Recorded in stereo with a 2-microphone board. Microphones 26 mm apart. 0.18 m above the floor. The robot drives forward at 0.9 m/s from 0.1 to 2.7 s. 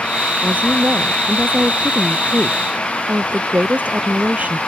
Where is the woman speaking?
75° right (ahead or behind); by 4.6 s 65° right (ahead or behind).